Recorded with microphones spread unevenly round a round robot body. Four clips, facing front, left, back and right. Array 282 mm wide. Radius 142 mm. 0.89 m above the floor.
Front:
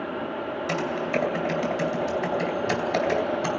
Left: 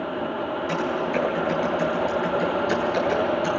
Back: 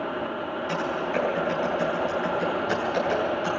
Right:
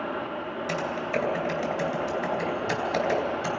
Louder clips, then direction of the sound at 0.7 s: Left 3 dB, front 1 dB; 20° right.